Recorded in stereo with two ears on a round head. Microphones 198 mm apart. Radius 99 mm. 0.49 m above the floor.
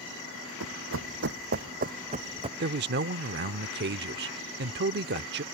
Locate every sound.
0.6 s running footsteps: 70° right (ahead or behind); by 2.5 s 25° right (ahead or behind)
2.6 s a man speaking: 50° right (ahead or behind)